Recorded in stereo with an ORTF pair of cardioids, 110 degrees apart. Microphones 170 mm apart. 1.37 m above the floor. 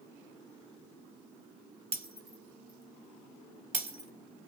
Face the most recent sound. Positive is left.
turn(degrees=-40)